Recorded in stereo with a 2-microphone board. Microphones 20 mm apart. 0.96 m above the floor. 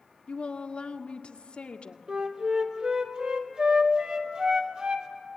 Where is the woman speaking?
70° left (ahead or behind), 1.7 m.